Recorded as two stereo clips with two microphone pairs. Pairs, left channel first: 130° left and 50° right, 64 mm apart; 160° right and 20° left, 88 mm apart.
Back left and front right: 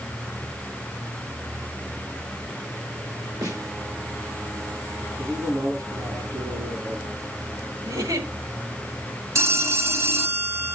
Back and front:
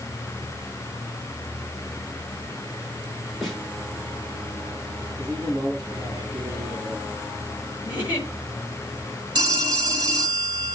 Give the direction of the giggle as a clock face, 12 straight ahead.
2 o'clock.